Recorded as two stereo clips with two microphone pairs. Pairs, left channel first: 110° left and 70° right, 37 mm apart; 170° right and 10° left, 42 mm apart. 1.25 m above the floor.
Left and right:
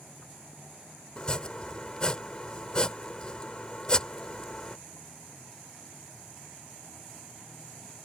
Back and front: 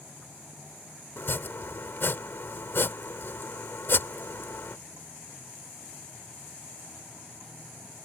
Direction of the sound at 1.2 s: 170° left.